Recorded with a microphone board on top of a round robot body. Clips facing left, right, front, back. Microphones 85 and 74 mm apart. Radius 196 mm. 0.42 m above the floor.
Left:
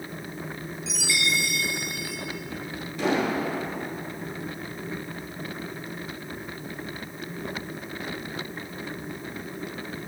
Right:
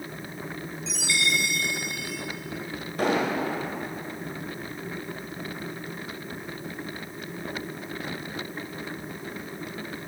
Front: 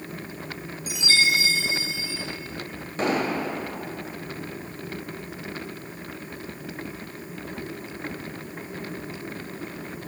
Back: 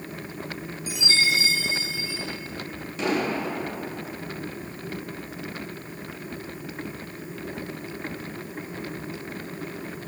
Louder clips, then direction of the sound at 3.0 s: Even, front 1 dB; 45° right.